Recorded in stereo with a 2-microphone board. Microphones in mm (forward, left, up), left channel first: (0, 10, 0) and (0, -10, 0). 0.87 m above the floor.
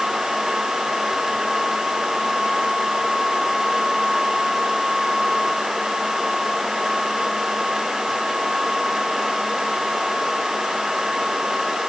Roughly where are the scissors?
No scissors in this recording.